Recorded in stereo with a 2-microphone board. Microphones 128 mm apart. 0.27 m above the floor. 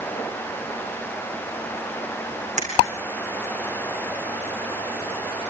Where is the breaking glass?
65° right (ahead or behind), 7.5 m.